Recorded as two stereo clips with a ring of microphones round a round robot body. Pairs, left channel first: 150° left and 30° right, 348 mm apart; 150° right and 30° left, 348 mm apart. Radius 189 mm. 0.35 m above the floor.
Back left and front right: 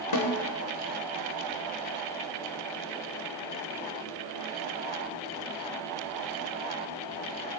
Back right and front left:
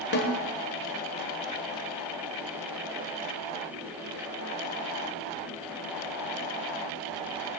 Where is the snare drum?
155° left, 1.7 m.